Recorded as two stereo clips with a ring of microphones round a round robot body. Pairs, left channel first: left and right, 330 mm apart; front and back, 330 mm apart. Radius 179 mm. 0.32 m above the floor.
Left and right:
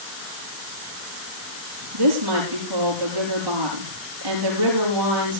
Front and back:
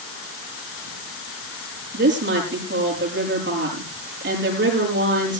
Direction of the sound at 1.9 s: 120° right.